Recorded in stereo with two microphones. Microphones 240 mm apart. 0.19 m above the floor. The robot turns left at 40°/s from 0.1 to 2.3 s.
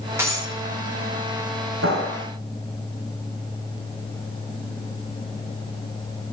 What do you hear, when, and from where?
0.2 s breaking glass: 10° right (ahead or behind), 8 m; by 0.5 s 25° right (ahead or behind), 8 m
1.8 s a clap: 65° right (ahead or behind), 7.5 m; by 2.2 s 80° right, 7.5 m